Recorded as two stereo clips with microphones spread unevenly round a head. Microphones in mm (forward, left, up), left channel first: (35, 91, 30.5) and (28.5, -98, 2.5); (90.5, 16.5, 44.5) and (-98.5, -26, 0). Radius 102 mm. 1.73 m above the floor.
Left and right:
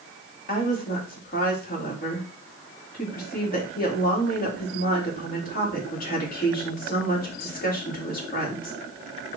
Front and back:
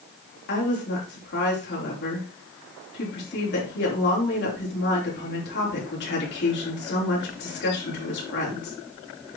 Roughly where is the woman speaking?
Ahead left.